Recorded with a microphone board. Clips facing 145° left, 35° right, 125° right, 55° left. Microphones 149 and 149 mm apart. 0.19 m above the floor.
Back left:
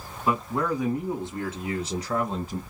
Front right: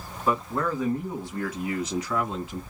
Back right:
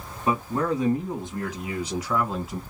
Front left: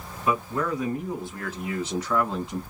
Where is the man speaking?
135° right, 1.7 m; by 2.6 s 155° left, 1.9 m.